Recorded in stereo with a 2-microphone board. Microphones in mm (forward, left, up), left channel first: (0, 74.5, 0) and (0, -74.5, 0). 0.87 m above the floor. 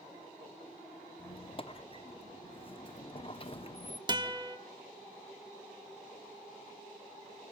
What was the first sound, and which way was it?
A squeak, 40° left (ahead or behind).